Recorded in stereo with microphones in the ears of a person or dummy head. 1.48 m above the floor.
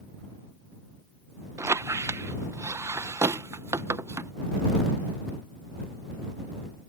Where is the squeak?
15° right (ahead or behind).